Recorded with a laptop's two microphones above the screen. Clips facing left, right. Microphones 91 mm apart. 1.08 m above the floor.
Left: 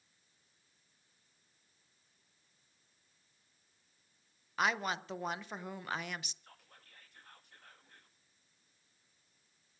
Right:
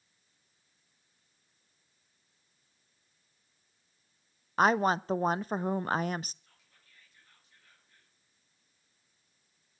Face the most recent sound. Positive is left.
turn(degrees=55)  # may be behind; listen again after turning